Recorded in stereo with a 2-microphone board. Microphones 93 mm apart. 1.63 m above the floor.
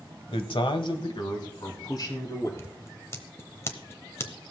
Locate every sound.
0.3 s a man speaking: 85° left, 1.1 m; by 2.5 s 45° left (ahead or behind), 3.5 m
2.6 s scissors: 35° left (ahead or behind), 1.0 m